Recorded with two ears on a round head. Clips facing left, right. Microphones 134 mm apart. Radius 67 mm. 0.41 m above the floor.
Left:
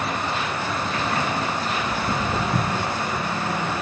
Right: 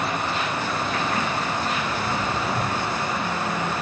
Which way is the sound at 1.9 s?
50° left (ahead or behind).